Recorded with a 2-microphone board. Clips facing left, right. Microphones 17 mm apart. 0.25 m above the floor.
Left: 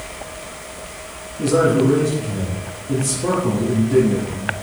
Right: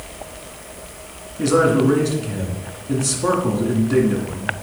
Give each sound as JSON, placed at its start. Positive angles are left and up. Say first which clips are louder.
{"t": 1.4, "sound": "a man speaking", "louder": "even", "side_deg": -40, "distance_m": 2.0}